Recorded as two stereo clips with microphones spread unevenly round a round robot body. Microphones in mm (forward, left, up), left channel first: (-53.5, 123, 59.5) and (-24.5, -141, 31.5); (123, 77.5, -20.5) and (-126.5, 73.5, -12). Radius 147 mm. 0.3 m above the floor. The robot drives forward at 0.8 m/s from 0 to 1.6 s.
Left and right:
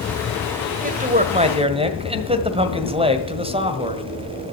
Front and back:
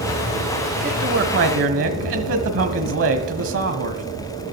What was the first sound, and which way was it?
A man speaking, 120° right.